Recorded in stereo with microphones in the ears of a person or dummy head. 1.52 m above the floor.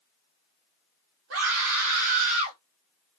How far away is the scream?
About 0.9 m.